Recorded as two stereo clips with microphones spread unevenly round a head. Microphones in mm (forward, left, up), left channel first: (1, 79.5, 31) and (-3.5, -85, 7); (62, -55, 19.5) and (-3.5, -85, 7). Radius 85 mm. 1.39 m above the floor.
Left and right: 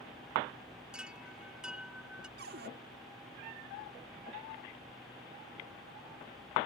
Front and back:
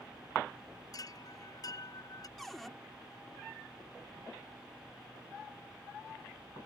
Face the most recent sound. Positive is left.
turn(degrees=-60)